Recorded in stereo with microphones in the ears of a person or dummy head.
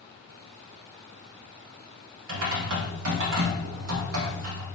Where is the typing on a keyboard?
75° right (ahead or behind), 0.9 m.